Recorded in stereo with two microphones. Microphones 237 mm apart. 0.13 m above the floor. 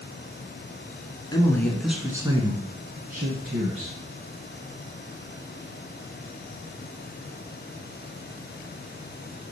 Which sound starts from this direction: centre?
A man speaking, at 1.3 s.